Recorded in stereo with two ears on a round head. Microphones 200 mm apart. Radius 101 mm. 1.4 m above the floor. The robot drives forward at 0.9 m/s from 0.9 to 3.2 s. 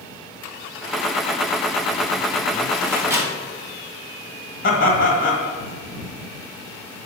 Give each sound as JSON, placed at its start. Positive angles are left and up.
{"t": 2.9, "sound": "a microwave", "side_deg": -15, "distance_m": 1.6}
{"t": 4.6, "sound": "laughter", "side_deg": 45, "distance_m": 1.6}